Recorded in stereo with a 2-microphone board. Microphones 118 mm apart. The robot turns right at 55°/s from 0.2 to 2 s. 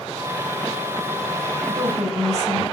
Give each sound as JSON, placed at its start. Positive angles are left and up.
{"t": 1.7, "sound": "a woman speaking", "side_deg": -50, "distance_m": 3.5}